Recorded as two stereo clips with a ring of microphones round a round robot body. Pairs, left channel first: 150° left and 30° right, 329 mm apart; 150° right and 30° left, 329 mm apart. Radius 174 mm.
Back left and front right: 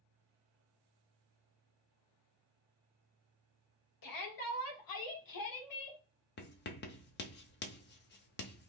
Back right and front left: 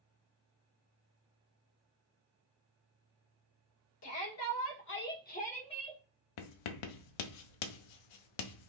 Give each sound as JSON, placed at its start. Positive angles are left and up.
{"t": 4.0, "sound": "a shout", "azimuth_deg": 170, "distance_m": 1.7}
{"t": 6.4, "sound": "writing", "azimuth_deg": -150, "distance_m": 0.6}